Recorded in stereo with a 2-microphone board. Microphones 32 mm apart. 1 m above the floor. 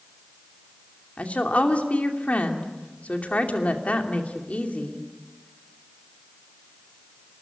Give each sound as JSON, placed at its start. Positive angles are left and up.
{"t": 1.2, "sound": "a woman speaking", "side_deg": 50, "distance_m": 2.5}